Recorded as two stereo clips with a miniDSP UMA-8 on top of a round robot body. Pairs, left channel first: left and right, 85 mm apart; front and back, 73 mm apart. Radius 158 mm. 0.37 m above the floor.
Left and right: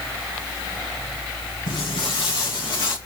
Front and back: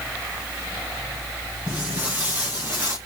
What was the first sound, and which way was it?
Footsteps, 110° left.